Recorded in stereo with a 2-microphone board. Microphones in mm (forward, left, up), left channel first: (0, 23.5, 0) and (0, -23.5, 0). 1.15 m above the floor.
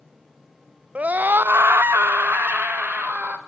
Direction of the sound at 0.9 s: 30° right (ahead or behind).